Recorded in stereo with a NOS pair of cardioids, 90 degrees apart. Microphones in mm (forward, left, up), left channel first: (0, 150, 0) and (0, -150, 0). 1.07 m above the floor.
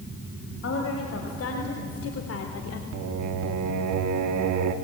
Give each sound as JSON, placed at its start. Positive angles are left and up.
{"t": 0.6, "sound": "a woman speaking", "azimuth_deg": 50, "distance_m": 5.0}
{"t": 2.9, "sound": "singing", "azimuth_deg": -70, "distance_m": 1.7}